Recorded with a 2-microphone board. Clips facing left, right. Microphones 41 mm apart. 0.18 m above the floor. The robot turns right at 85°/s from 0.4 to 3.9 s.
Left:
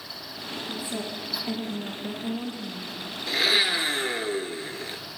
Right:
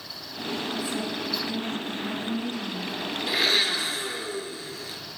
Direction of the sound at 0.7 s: 5° left.